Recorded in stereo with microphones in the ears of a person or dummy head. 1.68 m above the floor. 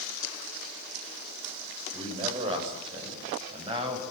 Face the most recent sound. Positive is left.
turn(degrees=-25)  # may be behind; listen again after turning